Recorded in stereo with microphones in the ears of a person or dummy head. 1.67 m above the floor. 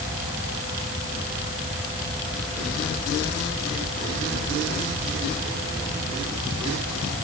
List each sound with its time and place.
Only background noise.